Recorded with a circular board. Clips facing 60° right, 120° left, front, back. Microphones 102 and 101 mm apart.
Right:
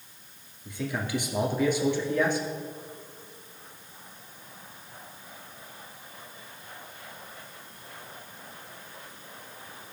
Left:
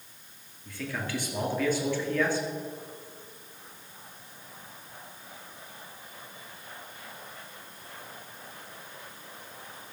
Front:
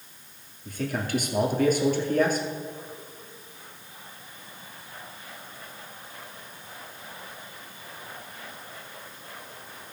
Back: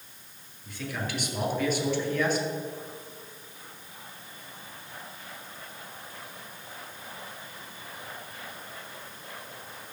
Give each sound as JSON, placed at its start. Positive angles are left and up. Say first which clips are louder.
{"t": 0.7, "sound": "a man speaking", "louder": "right 3 dB, front 5 dB", "azimuth_deg": 5, "distance_m": 2.0}